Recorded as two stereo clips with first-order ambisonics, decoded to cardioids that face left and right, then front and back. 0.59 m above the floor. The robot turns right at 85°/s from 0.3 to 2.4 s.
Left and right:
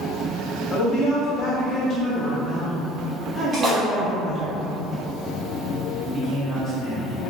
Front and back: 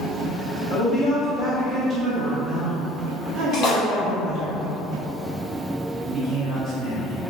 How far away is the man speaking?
About 1.4 m.